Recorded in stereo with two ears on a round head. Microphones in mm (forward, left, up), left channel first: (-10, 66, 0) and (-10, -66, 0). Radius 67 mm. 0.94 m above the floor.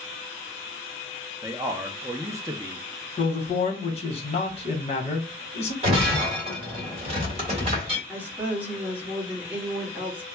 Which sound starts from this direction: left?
A man speaking, at 3.2 s.